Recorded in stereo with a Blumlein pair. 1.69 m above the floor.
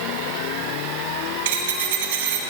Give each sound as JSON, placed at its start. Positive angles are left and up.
{"t": 1.4, "sound": "a dropped coin", "azimuth_deg": -55, "distance_m": 3.0}